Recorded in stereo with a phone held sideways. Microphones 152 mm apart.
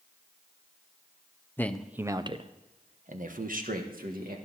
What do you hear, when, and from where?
1.6 s a man speaking: 15° left (ahead or behind), 0.7 m; by 4.4 s 75° right (ahead or behind), 2 m